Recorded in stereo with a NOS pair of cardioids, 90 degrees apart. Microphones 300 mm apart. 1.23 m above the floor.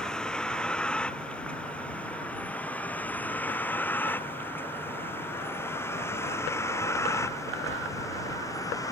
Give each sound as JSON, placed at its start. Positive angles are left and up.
{"t": 0.0, "sound": "a vehicle", "azimuth_deg": 5}